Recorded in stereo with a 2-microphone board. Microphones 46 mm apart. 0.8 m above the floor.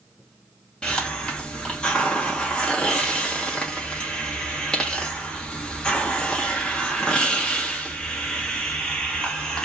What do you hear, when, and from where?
0.8 s a hiss: 20° left (ahead or behind), 1.4 m